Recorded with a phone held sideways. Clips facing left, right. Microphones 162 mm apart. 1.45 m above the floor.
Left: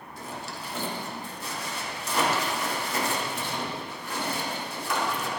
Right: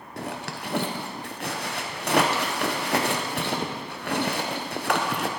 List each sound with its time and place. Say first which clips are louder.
0.2 s a zipper: right 5 dB; 70° right (ahead or behind), 0.9 m